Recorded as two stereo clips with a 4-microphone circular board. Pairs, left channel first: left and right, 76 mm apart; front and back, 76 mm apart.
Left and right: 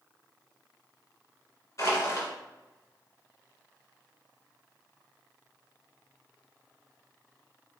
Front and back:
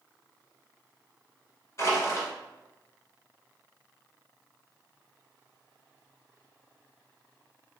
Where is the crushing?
45° left, 1.7 m.